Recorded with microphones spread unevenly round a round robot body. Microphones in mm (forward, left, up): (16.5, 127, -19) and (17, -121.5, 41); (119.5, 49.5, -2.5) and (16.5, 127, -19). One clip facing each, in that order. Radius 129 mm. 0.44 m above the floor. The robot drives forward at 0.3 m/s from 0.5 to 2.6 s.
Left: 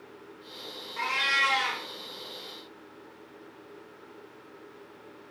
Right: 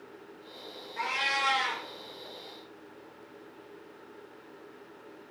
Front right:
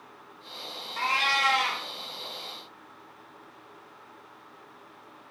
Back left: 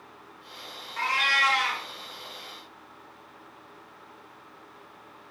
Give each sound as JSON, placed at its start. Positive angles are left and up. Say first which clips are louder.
{"t": 1.0, "sound": "a cat meowing", "louder": "right 1 dB, even", "azimuth_deg": 25, "distance_m": 0.8}